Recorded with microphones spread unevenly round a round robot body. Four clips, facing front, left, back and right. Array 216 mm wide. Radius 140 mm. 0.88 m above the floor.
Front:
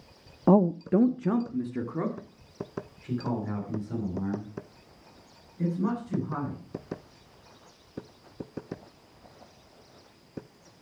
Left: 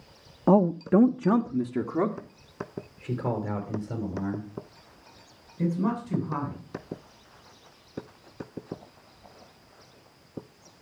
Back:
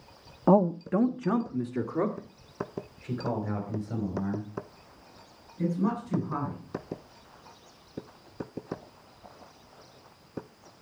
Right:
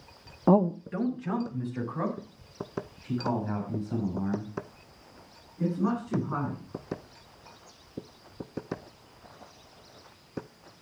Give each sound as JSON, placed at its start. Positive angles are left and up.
{"t": 0.5, "sound": "a man speaking", "azimuth_deg": -170, "distance_m": 0.5}